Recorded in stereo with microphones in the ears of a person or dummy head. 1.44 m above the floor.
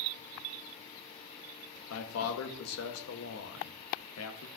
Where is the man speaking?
80° left, 1.2 m.